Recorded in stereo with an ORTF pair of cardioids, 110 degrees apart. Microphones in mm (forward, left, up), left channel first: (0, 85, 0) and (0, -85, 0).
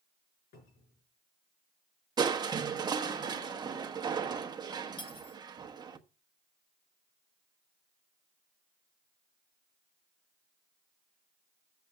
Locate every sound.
0.5 s a cupboard door: 65° left, 5 m
2.2 s crushing: 25° right, 1.1 m
5.0 s cutlery clinking: 30° left, 1.3 m